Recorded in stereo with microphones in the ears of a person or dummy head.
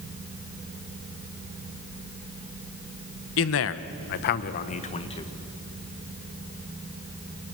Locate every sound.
3.4 s a man speaking: 75° left (ahead or behind), 1.2 m; by 5.3 s 25° left (ahead or behind), 1.6 m